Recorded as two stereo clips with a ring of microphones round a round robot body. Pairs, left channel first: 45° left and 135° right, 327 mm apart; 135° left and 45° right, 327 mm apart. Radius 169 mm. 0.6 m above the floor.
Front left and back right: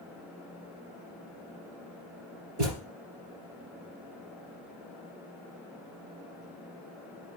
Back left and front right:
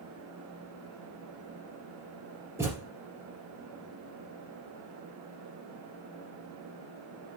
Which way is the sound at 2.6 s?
125° right.